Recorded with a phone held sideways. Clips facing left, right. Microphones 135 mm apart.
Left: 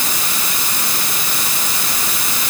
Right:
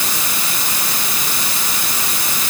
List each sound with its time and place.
Only background noise.